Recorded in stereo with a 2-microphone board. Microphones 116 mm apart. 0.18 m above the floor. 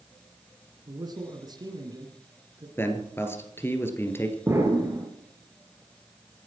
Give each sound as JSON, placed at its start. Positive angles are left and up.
{"t": 0.9, "sound": "a man speaking", "side_deg": -35, "distance_m": 2.5}
{"t": 2.8, "sound": "a man speaking", "side_deg": 20, "distance_m": 3.0}
{"t": 4.5, "sound": "an explosion", "side_deg": -20, "distance_m": 3.5}